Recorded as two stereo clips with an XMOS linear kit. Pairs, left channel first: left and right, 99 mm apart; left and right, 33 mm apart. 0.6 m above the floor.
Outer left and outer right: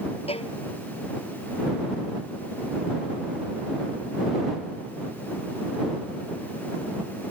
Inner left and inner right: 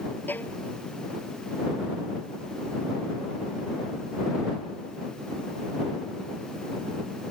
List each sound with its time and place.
0.3 s a violin: 70° left (ahead or behind)